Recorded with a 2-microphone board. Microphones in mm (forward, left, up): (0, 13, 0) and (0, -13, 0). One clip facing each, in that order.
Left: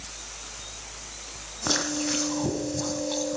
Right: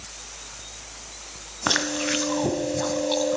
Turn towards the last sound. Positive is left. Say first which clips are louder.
# right 3 dB
turn(degrees=-35)  # may be behind; listen again after turning